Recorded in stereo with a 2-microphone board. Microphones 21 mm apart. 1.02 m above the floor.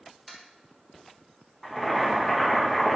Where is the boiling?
10° left (ahead or behind), 1.0 m.